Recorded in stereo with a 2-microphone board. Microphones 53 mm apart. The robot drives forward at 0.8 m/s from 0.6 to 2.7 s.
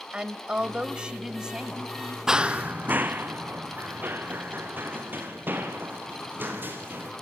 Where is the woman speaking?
20° right (ahead or behind), 1.1 m; by 2.2 s 10° right (ahead or behind), 1.9 m.